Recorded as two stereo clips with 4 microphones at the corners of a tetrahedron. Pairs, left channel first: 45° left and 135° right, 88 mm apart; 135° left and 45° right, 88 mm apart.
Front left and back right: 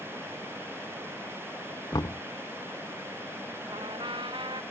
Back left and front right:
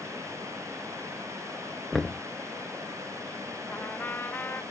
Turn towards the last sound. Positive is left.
turn(degrees=-155)